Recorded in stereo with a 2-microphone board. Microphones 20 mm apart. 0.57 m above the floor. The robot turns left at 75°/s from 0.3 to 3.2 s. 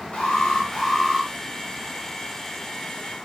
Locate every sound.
0.1 s an alarm: 55° left, 7.5 m; by 1.3 s 15° right, 7.5 m